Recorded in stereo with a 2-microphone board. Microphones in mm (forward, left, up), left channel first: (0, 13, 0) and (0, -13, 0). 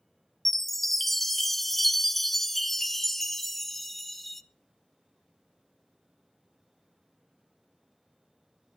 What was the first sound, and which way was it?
A chime, 5° left (ahead or behind).